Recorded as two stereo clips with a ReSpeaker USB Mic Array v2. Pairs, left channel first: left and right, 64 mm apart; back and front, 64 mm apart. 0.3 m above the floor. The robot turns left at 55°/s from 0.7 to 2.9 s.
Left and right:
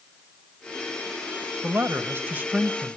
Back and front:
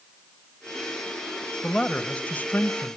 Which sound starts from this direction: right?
A man speaking, at 1.6 s.